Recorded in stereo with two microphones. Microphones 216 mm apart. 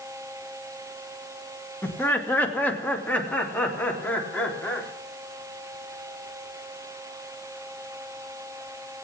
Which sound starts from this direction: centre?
Laughter, at 1.8 s.